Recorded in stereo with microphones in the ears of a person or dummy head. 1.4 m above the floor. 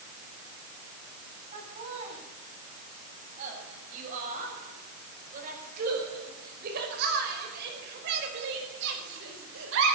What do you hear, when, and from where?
1.5 s laughter: 35° right (ahead or behind), 7.5 m; by 9.9 s 75° right (ahead or behind), 4.5 m